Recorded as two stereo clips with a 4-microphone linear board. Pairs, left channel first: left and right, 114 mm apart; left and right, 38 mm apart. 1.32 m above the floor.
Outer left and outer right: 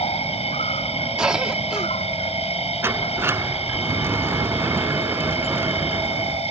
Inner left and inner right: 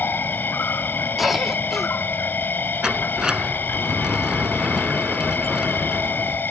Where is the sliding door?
20° right (ahead or behind).